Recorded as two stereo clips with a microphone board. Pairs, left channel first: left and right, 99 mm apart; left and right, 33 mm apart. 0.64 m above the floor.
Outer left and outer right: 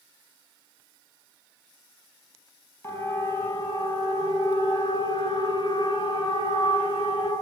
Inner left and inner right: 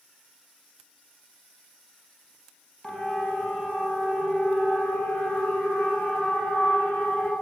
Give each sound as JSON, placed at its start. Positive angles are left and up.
{"t": 2.8, "sound": "a siren", "side_deg": 25, "distance_m": 5.5}